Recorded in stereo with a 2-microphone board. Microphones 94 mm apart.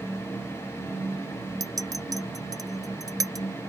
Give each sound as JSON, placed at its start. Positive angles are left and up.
{"t": 1.6, "sound": "a clink", "side_deg": -40}